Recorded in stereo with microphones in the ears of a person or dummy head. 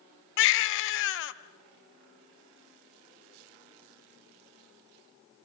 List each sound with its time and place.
0.4 s a baby crying: 70° left (ahead or behind), 0.6 m